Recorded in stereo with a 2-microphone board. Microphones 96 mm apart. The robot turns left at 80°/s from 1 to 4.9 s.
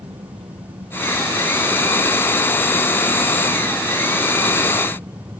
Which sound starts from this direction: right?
An engine running, at 0.0 s.